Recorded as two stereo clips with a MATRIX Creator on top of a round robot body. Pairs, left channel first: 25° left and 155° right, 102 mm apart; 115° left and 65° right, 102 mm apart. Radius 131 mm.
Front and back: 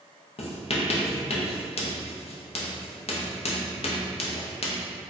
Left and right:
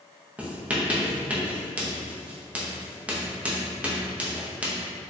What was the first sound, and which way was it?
Writing, 10° left.